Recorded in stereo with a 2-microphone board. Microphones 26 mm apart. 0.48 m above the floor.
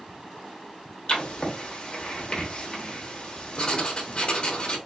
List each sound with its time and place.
1.1 s writing: 35° left (ahead or behind), 0.8 m